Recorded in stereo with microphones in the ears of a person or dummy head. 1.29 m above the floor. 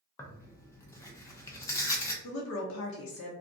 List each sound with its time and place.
0.2 s tearing paper: 25° left (ahead or behind), 0.7 m
2.2 s a woman speaking: 60° left (ahead or behind), 0.7 m